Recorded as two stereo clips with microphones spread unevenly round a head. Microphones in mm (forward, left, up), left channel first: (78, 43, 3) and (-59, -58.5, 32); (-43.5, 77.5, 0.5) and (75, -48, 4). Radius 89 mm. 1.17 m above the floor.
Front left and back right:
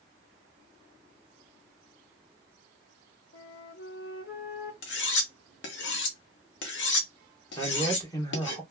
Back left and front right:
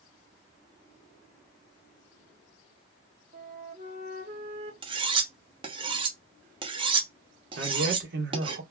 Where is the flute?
Straight ahead, 1.5 m.